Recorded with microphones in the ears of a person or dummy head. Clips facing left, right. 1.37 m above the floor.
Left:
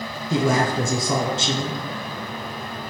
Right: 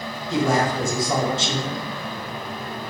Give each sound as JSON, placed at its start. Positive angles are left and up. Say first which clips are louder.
{"t": 0.3, "sound": "a man speaking", "louder": "even", "side_deg": 70, "distance_m": 1.3}